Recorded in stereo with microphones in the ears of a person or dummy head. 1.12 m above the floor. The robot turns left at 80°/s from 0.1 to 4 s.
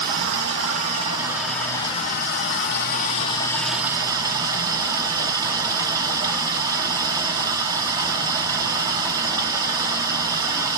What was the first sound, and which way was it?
Running water, 70° right.